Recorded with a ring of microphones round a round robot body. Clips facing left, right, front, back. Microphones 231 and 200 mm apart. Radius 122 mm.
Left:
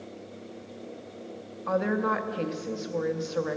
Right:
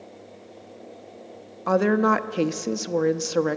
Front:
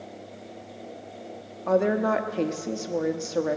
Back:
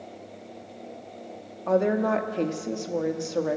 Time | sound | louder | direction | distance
1.7 | a woman speaking | right 7 dB, even | 90° right | 0.9 m